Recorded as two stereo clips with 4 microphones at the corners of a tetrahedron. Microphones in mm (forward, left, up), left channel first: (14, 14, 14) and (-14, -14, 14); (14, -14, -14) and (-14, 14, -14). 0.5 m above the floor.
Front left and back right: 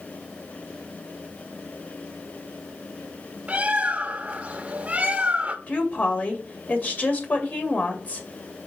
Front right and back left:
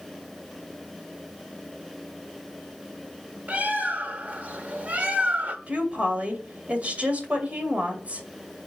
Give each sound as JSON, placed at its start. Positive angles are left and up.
{"t": 3.5, "sound": "a bird", "azimuth_deg": 175, "distance_m": 0.9}
{"t": 5.7, "sound": "a woman speaking", "azimuth_deg": 85, "distance_m": 1.9}